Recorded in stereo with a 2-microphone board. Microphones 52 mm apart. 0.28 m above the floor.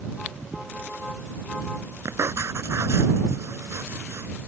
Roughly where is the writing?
Right.